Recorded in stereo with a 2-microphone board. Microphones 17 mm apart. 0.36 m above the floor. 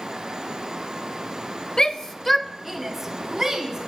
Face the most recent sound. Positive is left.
turn(degrees=-30)  # may be behind; listen again after turning